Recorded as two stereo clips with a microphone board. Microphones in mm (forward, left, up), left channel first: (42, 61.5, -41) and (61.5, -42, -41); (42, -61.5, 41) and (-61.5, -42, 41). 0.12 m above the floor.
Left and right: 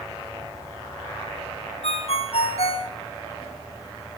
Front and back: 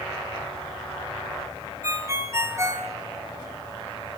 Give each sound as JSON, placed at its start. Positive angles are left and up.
{"t": 1.8, "sound": "a ringtone", "azimuth_deg": 110, "distance_m": 2.0}